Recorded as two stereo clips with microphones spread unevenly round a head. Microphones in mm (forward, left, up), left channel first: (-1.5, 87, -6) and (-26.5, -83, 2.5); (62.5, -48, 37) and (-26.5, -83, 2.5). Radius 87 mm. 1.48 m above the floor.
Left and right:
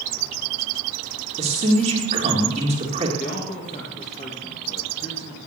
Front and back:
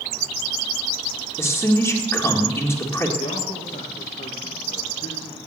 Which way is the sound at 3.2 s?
30° left.